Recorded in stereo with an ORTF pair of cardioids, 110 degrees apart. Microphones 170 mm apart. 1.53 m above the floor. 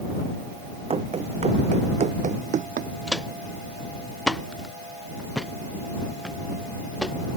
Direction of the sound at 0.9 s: 35° right.